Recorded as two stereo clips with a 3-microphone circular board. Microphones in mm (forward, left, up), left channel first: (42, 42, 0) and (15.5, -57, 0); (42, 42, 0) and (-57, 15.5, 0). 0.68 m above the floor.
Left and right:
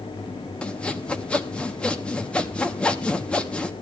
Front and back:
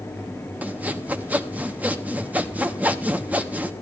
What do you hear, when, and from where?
0.6 s sawing: 140° left, 1.3 m